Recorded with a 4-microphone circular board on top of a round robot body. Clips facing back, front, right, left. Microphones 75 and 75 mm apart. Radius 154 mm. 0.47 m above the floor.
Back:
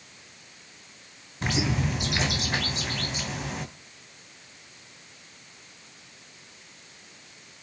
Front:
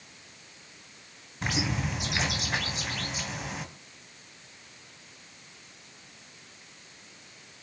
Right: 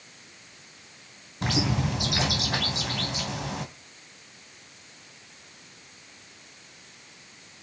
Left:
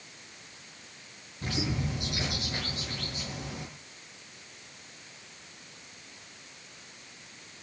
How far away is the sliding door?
No sliding door in this recording.